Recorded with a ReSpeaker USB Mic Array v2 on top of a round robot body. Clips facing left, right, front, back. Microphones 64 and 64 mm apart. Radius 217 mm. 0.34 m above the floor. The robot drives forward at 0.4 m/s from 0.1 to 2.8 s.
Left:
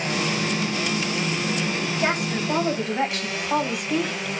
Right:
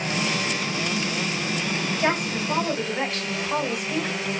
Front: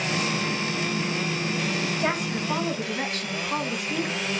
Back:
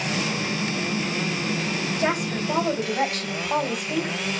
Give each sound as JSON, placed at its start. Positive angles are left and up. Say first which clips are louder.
{"t": 2.0, "sound": "a woman speaking", "louder": "even, back 2 dB", "azimuth_deg": 165, "distance_m": 3.0}